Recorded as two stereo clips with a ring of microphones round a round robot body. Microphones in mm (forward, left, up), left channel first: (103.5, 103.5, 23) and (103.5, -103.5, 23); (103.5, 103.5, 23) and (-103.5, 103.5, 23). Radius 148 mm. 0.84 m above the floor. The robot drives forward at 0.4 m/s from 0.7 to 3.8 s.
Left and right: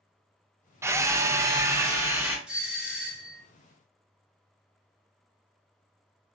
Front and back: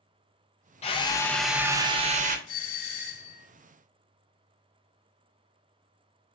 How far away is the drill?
About 0.6 m.